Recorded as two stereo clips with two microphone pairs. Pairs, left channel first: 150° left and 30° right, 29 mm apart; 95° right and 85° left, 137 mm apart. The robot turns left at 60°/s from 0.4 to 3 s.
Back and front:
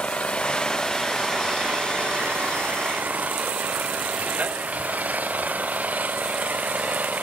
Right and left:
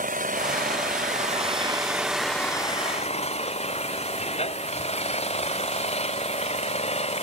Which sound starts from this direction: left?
An engine running, at 0.0 s.